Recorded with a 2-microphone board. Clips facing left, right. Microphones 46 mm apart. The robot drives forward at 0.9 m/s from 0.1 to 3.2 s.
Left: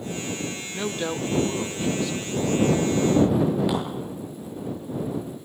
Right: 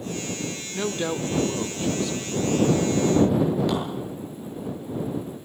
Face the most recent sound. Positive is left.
turn(degrees=10)  # may be behind; listen again after turning